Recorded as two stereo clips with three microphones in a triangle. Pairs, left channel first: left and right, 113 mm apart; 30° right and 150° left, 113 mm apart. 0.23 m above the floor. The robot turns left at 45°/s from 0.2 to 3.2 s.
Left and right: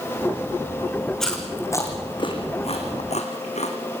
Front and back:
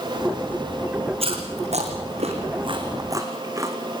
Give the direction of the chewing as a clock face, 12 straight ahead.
6 o'clock.